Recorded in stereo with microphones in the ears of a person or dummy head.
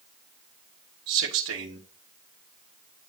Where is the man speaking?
80° right, 1.1 m.